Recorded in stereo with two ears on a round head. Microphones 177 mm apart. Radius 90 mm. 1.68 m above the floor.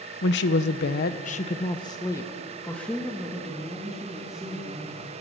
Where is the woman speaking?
55° left (ahead or behind), 1.1 m; by 5.1 s 5° right (ahead or behind), 4 m.